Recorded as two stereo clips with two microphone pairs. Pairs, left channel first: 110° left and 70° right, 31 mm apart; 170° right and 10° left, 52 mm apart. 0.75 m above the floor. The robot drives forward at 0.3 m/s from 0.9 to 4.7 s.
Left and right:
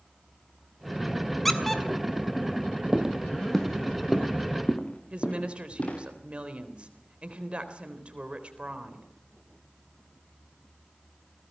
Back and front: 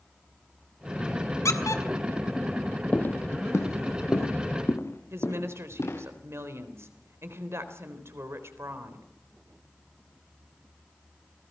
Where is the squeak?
165° right, 2 m.